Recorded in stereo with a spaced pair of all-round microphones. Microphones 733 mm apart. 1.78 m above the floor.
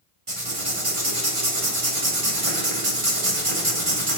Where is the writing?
45° right (ahead or behind), 1.8 m.